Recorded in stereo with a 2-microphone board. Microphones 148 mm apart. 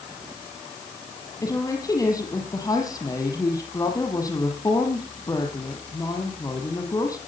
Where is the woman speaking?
25° left (ahead or behind), 6 m.